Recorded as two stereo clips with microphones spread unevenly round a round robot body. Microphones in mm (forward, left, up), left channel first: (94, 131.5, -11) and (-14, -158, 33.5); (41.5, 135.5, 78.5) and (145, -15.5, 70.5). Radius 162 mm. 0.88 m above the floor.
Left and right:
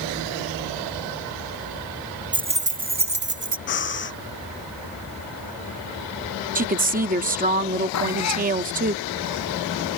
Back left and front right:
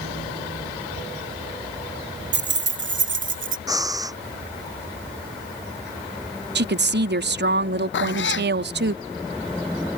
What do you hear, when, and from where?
2.3 s keys jangling: 30° right; by 3.6 s 55° right
3.7 s breathing: 15° left
6.5 s a woman speaking: 45° right
7.9 s a cat meowing: 115° left